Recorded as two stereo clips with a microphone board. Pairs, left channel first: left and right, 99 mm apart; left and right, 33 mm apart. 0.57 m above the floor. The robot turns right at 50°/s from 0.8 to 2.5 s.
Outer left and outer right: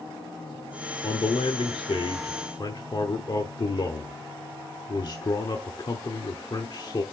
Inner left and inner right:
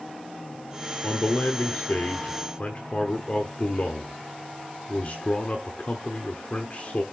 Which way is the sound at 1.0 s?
55° left.